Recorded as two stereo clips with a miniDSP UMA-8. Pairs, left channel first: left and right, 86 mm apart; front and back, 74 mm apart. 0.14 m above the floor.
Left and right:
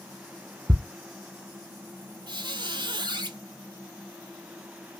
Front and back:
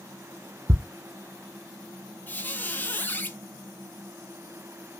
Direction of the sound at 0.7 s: 145° right.